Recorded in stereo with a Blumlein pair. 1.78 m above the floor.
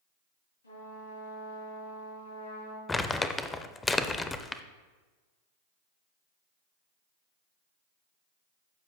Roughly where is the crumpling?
Ahead.